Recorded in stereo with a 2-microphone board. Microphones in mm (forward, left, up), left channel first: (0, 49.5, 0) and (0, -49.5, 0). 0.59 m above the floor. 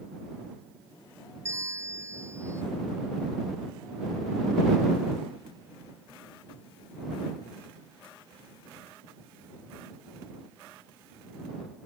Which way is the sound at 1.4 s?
30° right (ahead or behind).